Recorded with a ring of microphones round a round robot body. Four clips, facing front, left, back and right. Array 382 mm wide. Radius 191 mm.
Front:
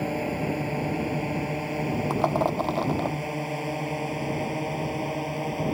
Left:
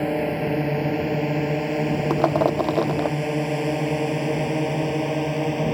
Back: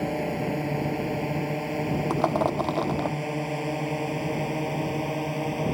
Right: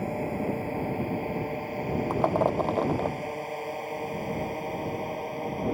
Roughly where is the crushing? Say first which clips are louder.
Left 4 dB, even; left.